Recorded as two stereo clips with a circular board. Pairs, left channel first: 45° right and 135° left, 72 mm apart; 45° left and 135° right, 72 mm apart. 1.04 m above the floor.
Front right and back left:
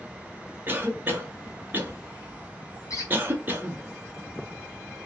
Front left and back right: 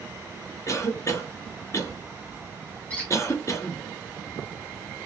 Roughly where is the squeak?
Ahead right.